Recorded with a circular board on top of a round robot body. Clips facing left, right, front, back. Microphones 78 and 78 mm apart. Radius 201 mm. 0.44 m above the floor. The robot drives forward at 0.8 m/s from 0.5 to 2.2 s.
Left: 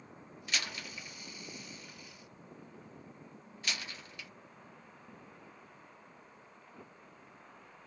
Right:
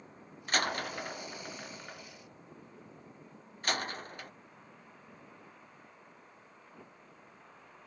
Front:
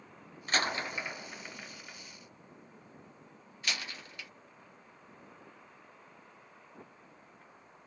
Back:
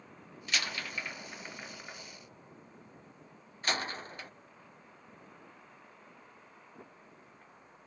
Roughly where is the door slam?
Ahead right.